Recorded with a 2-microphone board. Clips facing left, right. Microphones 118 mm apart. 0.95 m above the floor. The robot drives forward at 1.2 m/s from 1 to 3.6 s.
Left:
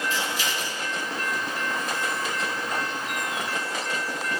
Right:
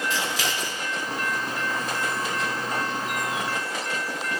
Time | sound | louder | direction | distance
0.1 | scissors | right 1 dB | 85° right | 1.7 m